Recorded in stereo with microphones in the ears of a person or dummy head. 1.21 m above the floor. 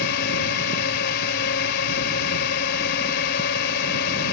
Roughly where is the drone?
Left.